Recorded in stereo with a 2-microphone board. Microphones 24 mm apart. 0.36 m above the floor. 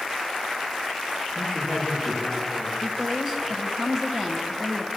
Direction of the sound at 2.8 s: 30° right (ahead or behind).